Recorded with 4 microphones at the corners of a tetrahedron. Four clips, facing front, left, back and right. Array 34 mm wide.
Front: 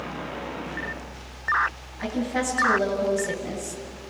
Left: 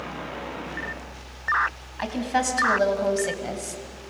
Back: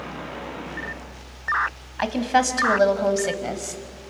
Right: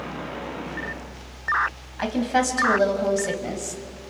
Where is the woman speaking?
175° right, 3.5 m; by 3.8 s 165° left, 2.5 m.